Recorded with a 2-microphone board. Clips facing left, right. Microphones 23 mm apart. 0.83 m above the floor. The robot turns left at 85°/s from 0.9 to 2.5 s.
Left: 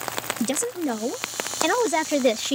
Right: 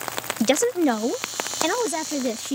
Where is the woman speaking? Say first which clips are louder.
Right 8 dB; 130° right; by 2.6 s 95° left.